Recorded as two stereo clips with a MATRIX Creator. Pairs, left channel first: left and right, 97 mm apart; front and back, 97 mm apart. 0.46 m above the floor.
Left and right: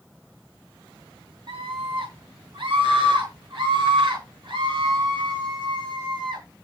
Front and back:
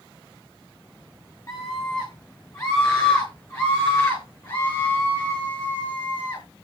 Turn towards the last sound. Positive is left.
turn(degrees=-50)